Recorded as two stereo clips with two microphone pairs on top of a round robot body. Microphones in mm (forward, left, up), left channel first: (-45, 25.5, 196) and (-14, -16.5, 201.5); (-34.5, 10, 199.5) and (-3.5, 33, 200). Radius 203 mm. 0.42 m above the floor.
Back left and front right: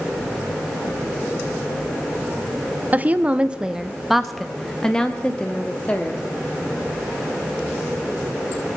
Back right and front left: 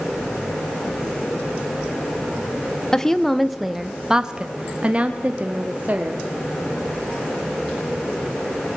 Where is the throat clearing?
I don't hear throat clearing.